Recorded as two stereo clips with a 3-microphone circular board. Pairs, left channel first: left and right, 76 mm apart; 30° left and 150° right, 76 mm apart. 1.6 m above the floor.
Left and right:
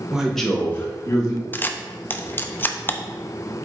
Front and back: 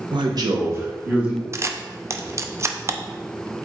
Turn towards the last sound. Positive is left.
turn(degrees=155)